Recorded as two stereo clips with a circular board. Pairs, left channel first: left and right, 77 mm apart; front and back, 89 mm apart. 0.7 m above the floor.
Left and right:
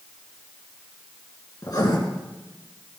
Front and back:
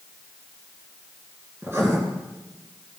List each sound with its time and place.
1.6 s writing: 120° left, 2.5 m